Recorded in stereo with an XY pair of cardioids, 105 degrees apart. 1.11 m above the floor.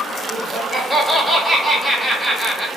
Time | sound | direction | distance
0.3 | laughter | 10° right | 1.3 m